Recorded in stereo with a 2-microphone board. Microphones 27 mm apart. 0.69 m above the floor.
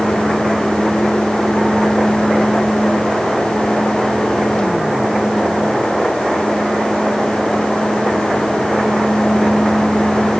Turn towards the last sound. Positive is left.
No sound to turn to.